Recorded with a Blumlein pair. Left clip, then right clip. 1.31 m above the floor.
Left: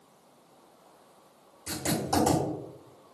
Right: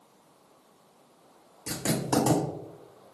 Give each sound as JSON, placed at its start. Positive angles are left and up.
{"t": 1.7, "sound": "writing", "azimuth_deg": -30, "distance_m": 1.3}